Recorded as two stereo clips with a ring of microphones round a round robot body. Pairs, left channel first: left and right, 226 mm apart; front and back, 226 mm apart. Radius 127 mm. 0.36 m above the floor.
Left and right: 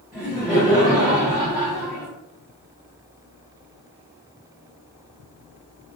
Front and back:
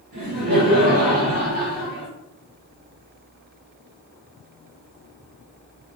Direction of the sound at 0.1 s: 165° right.